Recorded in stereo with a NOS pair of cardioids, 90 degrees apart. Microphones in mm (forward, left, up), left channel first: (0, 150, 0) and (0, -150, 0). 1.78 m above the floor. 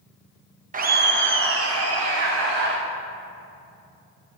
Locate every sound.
0.7 s laughter: 30° right, 1.1 m; by 2.8 s 70° right, 1.8 m